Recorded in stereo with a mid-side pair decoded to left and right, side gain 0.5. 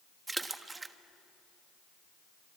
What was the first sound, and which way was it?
A splash, 20° right.